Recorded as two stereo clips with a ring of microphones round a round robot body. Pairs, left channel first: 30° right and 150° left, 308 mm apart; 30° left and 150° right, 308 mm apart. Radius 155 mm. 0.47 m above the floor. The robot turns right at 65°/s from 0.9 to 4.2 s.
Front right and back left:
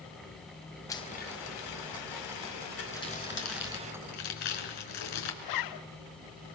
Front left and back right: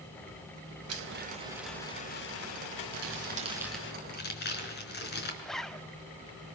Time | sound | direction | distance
0.9 | a blender | 110° right | 3 m
2.9 | crumpling | 110° right | 5 m
5.4 | a zipper | 60° right | 0.8 m